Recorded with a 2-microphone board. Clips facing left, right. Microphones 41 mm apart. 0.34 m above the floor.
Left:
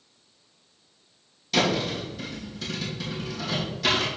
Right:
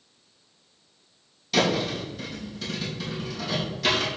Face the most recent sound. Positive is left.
turn(degrees=0)  # may be behind; listen again after turning